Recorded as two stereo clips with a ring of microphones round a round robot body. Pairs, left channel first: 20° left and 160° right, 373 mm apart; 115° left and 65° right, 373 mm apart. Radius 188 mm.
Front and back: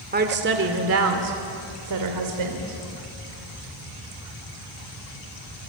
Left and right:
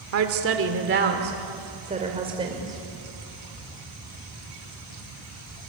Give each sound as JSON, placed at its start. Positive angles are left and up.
{"t": 0.1, "sound": "a woman speaking", "azimuth_deg": -100, "distance_m": 1.8}